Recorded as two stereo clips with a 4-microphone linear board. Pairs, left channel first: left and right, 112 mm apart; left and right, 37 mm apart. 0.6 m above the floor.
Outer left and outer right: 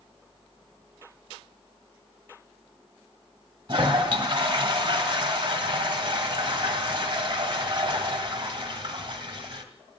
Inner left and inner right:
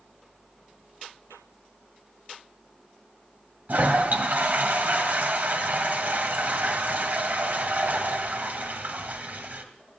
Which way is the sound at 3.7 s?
50° right (ahead or behind).